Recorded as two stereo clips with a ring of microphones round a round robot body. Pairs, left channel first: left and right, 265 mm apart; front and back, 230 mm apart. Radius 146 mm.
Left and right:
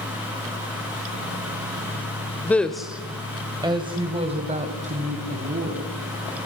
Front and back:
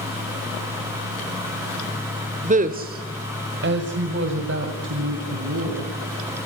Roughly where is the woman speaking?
Behind.